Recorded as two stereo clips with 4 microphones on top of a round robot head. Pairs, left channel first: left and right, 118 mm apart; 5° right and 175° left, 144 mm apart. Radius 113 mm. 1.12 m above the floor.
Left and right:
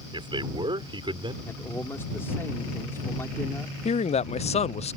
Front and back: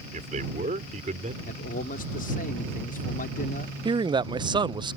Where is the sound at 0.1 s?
135° right.